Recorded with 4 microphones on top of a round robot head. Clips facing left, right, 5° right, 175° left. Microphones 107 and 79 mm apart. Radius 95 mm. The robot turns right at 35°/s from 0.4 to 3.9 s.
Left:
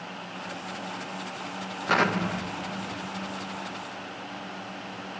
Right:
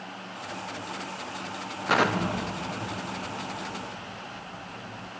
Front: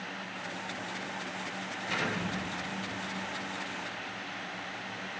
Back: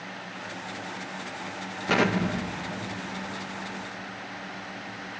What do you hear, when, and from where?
1.9 s an explosion: straight behind, 0.7 m; by 5.1 s 110° right, 0.7 m